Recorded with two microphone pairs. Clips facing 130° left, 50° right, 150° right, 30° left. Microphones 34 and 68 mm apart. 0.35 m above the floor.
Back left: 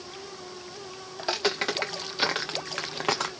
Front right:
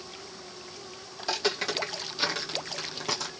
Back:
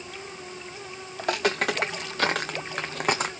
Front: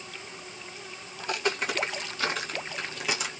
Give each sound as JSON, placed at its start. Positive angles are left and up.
{"t": 1.2, "sound": "footsteps", "azimuth_deg": -160, "distance_m": 1.9}